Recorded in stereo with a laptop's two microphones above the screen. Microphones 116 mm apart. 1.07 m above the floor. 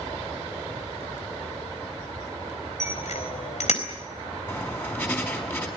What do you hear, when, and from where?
2.8 s a bicycle bell: 70° left (ahead or behind), 4 m
4.5 s writing: 20° left (ahead or behind), 5 m